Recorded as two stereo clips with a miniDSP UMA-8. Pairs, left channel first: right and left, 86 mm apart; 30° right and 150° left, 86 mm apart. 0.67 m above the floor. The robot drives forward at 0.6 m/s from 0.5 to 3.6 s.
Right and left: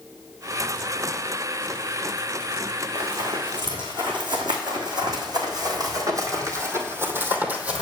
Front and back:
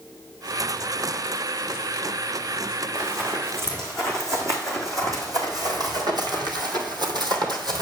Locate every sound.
3.0 s running footsteps: 85° left, 2.5 m; by 7.8 s 165° left, 1.4 m